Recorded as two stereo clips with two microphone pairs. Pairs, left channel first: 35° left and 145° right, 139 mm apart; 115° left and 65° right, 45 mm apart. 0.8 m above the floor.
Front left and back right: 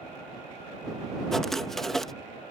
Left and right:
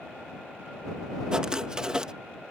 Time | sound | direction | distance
1.3 | writing | 50° right | ?